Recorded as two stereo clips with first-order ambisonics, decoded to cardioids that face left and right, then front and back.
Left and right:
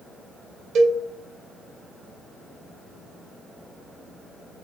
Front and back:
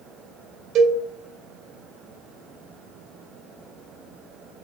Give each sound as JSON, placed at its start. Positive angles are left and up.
{"t": 0.8, "sound": "a cowbell", "azimuth_deg": -135, "distance_m": 0.7}